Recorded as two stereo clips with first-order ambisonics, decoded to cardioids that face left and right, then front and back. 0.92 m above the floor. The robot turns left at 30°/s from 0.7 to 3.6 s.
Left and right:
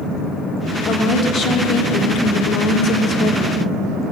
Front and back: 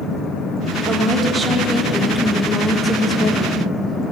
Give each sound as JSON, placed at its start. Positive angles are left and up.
{"t": 0.9, "sound": "a woman speaking", "azimuth_deg": 135, "distance_m": 1.0}